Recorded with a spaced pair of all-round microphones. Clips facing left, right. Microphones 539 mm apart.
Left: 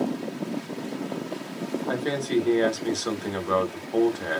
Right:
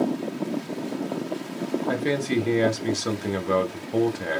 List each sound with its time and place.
1.9 s a man speaking: 50° right (ahead or behind), 0.8 m